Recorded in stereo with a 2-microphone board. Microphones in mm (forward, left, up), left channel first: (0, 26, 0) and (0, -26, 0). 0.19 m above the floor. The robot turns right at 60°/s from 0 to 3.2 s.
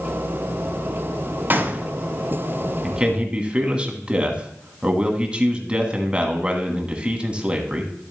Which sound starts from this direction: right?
A gunshot, at 1.5 s.